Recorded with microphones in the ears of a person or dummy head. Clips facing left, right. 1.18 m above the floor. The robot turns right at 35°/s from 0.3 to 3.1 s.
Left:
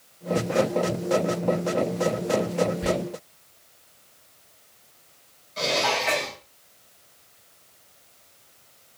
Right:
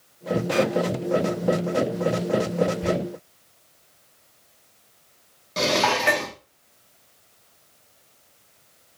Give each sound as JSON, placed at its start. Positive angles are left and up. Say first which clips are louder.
{"t": 2.8, "sound": "whispering", "louder": "right 1 dB", "side_deg": 20, "distance_m": 2.5}
{"t": 5.6, "sound": "dishes clattering", "louder": "right 3 dB", "side_deg": -65, "distance_m": 1.2}